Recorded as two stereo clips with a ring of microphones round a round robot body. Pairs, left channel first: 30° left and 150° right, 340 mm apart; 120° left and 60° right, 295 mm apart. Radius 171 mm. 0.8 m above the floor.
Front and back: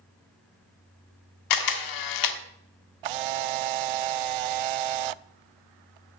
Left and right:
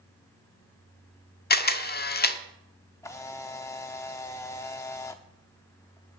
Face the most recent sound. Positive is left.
turn(degrees=-155)